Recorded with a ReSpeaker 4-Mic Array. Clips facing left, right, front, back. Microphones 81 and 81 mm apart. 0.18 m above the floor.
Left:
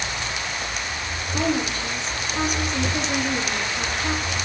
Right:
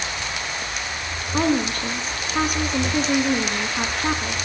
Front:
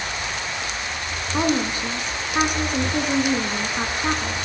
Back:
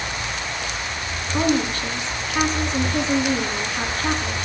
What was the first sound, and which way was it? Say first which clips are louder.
A woman speaking: right 3 dB, back 1 dB; 70° right.